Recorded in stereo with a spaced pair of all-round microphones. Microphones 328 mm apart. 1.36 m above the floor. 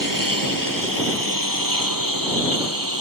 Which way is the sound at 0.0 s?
75° right (ahead or behind).